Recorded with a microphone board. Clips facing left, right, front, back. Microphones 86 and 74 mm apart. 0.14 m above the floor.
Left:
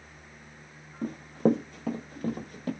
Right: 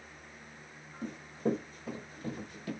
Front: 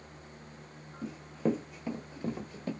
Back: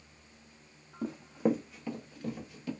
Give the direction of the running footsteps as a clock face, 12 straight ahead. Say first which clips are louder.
Left 8 dB, back 2 dB; 7 o'clock.